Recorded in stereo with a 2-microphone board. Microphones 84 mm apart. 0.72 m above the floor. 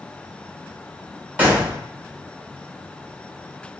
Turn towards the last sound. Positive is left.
turn(degrees=-20)  # may be behind; listen again after turning